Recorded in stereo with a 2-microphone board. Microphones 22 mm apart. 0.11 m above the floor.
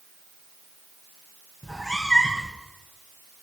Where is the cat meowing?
20° left (ahead or behind), 4 m.